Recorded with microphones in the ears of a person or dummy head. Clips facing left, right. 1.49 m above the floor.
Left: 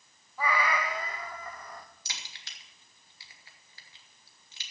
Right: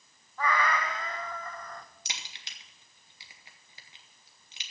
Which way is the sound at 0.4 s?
15° left (ahead or behind).